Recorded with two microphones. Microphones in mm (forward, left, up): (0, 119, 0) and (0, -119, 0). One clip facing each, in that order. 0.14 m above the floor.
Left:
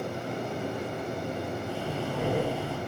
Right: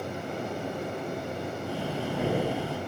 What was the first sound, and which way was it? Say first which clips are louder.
Breathing: right 1 dB; 15° right (ahead or behind).